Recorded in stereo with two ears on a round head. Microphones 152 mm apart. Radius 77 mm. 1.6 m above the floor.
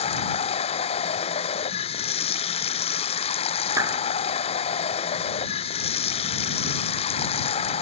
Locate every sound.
0.0 s running water: 35° left (ahead or behind)
3.8 s a clap: 20° right (ahead or behind)